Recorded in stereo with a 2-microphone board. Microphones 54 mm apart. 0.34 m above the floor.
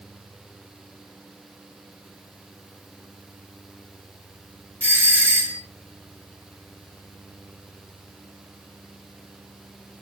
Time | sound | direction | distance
4.8 | a doorbell | 35° right (ahead or behind) | 1.6 m